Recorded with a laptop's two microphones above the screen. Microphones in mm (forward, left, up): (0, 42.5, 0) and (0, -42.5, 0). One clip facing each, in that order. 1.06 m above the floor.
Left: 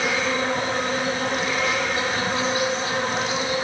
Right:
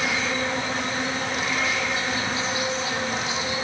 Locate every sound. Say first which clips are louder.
0.0 s an insect: left 3 dB; 55° left (ahead or behind), 4 m